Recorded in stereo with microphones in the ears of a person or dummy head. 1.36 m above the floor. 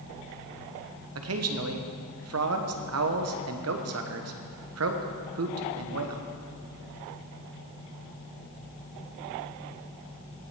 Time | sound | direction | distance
1.1 | a man speaking | 70° right (ahead or behind) | 1.0 m